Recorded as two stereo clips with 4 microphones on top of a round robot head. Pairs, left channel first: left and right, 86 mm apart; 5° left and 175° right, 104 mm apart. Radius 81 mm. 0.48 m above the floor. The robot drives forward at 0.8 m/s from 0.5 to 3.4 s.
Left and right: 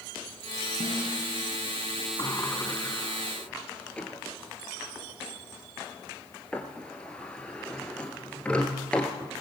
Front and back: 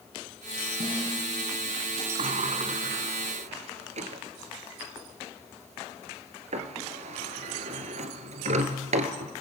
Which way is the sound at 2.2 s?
160° left.